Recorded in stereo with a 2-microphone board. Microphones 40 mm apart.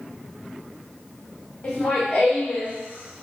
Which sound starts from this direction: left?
Laughter, at 1.6 s.